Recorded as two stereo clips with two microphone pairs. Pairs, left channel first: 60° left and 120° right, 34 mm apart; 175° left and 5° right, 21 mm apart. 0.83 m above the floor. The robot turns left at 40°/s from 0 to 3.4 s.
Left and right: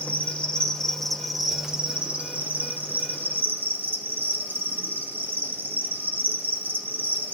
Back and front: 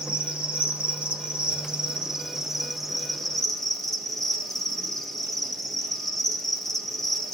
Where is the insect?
25° left, 1.0 m; by 7.3 s 115° right, 1.0 m.